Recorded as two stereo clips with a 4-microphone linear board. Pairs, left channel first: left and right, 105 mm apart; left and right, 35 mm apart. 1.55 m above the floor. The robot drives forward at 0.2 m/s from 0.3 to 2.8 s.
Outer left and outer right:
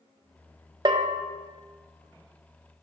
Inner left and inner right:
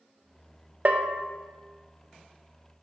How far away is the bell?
About 0.5 m.